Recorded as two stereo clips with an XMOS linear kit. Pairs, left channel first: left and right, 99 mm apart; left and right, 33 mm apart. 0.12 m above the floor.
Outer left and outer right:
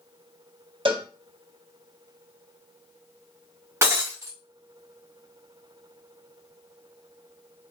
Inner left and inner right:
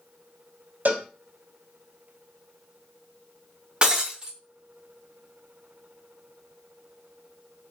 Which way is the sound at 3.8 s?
25° right (ahead or behind).